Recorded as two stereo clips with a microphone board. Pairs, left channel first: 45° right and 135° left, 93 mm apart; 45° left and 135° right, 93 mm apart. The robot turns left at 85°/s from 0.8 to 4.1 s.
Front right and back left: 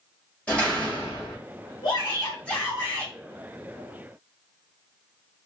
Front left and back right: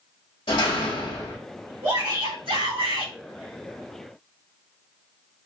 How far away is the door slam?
About 2 m.